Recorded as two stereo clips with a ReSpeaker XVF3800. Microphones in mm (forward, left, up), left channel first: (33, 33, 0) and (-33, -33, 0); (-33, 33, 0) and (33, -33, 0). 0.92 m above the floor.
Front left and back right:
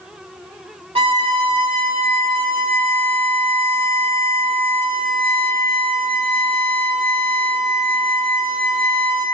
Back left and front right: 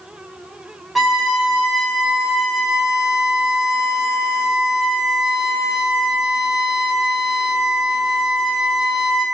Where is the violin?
135° right, 1.8 m.